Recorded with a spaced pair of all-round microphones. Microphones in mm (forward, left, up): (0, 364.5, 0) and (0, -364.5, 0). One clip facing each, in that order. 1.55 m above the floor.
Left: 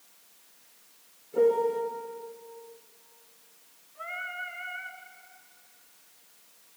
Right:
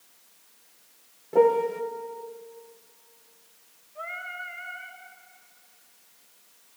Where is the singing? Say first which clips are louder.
Right 2 dB; 15° right (ahead or behind), 2.5 m.